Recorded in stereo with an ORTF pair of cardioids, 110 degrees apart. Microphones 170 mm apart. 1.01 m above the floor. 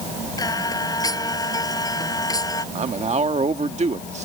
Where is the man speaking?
40° right.